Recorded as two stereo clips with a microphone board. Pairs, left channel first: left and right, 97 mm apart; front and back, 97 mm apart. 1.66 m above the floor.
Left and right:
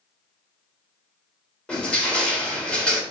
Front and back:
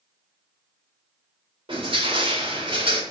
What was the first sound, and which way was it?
Crushing, 170° left.